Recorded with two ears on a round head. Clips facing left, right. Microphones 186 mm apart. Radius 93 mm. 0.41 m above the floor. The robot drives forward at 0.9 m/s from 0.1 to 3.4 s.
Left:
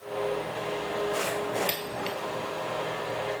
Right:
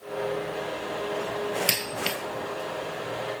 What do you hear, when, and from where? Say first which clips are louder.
1.7 s a dropped coin: right 1 dB; 60° right (ahead or behind), 0.6 m; by 2.2 s 50° right (ahead or behind), 0.7 m